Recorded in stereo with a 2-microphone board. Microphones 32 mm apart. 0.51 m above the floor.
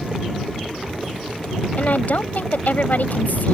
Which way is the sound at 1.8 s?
60° left (ahead or behind).